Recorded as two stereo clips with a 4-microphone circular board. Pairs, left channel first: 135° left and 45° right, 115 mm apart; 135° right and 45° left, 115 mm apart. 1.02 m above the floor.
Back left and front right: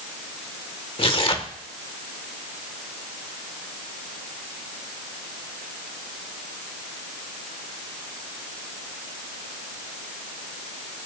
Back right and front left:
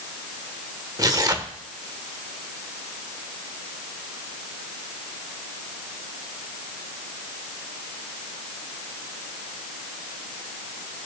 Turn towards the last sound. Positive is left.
turn(degrees=100)